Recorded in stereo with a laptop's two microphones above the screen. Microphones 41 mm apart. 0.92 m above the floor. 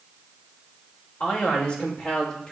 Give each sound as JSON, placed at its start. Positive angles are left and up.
{"t": 1.2, "sound": "a man speaking", "side_deg": 40, "distance_m": 3.0}